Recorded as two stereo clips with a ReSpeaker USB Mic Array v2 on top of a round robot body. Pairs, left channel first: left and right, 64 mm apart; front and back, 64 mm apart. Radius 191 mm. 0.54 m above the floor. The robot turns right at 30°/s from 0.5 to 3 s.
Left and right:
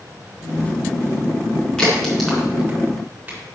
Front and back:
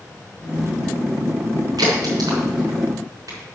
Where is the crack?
165° left, 4.5 m; by 3.4 s 155° right, 4.5 m.